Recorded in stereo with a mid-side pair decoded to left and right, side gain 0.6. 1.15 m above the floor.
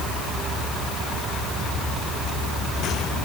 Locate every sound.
Only background noise.